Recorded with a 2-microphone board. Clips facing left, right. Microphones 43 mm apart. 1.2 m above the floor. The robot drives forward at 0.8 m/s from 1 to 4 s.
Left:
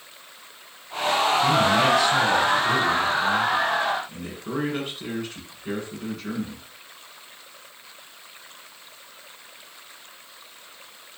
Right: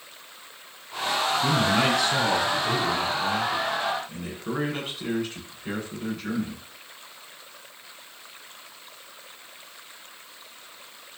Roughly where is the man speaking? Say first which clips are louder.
Left 2 dB; centre.